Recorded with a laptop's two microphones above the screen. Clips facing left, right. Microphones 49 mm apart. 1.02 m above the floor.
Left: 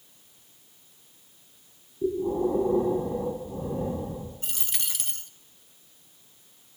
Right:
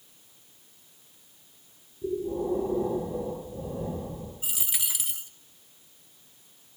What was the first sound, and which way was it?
Breathing, 85° left.